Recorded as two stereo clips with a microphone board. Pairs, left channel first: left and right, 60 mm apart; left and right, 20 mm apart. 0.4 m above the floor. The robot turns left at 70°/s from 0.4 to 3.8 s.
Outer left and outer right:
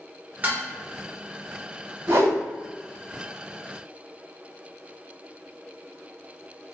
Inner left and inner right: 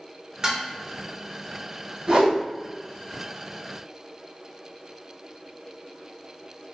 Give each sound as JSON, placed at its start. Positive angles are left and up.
{"t": 0.4, "sound": "dishes clattering", "side_deg": -30, "distance_m": 0.8}
{"t": 2.1, "sound": "a whoosh", "side_deg": -50, "distance_m": 1.2}